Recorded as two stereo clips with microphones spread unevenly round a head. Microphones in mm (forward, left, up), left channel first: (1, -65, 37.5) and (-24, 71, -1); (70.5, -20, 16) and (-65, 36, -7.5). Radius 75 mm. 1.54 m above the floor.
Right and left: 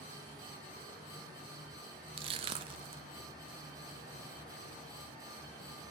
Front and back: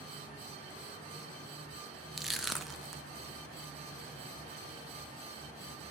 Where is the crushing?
50° left, 0.7 m.